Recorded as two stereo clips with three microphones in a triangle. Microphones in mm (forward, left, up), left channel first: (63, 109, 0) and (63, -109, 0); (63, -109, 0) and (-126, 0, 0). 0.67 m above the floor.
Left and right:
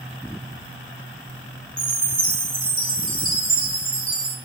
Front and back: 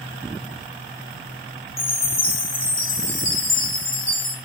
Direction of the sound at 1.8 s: 45° right.